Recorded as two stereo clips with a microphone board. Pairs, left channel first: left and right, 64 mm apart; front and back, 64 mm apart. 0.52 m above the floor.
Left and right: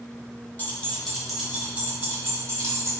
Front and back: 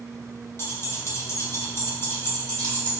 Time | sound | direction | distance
0.6 | keys jangling | 35° left | 0.7 m